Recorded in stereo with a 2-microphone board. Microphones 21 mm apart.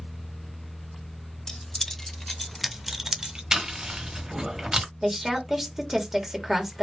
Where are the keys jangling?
25° left (ahead or behind), 0.9 m; by 3.4 s 35° right (ahead or behind), 0.6 m.